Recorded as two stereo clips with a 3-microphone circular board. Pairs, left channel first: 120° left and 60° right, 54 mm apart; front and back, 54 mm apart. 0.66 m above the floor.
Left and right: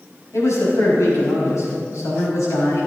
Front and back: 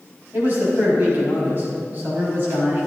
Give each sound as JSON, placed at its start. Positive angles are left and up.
{"t": 0.3, "sound": "a man speaking", "azimuth_deg": 130, "distance_m": 5.0}